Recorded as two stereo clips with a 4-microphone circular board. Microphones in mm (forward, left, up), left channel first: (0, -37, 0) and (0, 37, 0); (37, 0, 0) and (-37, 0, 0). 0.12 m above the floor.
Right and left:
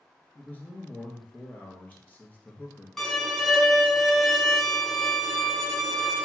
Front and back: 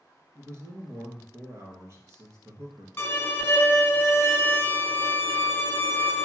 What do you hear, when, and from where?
0.3 s a man speaking: 150° right, 1.8 m
3.0 s a violin: 10° right, 1.4 m